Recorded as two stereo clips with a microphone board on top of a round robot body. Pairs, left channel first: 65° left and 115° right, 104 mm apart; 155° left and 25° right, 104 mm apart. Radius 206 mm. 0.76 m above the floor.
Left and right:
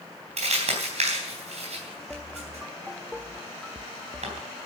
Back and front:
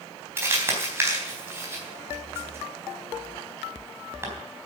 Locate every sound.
0.4 s crumpling: 90° right, 4 m